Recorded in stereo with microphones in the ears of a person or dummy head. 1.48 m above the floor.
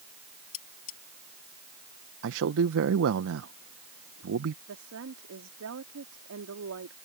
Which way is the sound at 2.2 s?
65° right (ahead or behind).